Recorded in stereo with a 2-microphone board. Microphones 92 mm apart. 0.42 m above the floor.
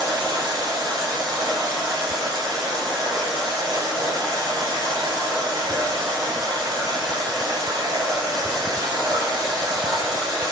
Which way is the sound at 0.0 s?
50° right (ahead or behind).